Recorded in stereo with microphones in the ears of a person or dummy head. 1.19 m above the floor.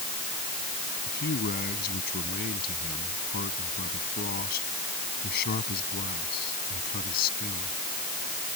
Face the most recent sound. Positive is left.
turn(degrees=50)  # may be behind; listen again after turning